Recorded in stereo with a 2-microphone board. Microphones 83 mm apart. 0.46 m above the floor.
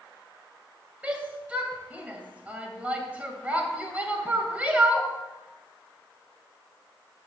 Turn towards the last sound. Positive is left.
turn(degrees=-15)  # may be behind; listen again after turning